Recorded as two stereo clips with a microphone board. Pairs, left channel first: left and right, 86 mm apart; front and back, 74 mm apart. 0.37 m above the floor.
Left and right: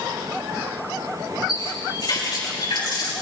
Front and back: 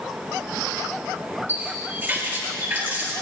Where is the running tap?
115° left, 4 m.